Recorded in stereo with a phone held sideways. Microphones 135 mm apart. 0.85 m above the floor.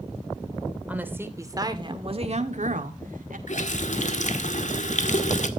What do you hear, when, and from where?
0.9 s a woman speaking: 10° right (ahead or behind), 2.5 m; by 3.4 s 80° right, 2 m
3.5 s a running tap: 65° left (ahead or behind), 1.6 m